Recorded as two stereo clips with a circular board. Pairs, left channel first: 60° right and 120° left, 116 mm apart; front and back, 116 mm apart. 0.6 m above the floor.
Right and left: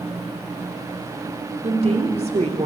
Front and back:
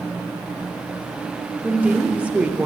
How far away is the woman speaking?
About 1.3 m.